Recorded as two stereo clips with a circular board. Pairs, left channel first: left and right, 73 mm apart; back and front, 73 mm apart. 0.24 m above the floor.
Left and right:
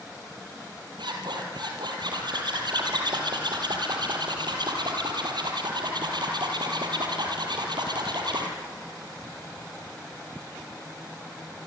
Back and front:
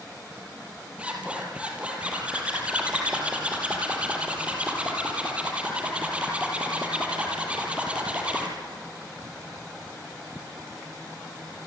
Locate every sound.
1.0 s a zipper: 75° right, 4.5 m